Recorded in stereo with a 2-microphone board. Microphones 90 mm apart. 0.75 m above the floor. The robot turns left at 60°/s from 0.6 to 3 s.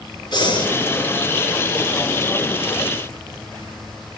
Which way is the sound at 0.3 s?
50° left (ahead or behind).